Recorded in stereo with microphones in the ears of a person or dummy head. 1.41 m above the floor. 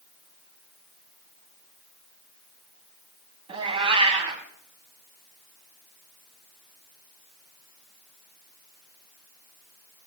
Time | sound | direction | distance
3.5 | a cat meowing | 30° right (ahead or behind) | 2.5 m